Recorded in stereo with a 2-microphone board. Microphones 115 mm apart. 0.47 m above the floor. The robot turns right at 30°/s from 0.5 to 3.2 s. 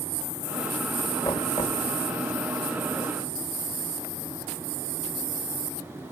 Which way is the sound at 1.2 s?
35° left (ahead or behind).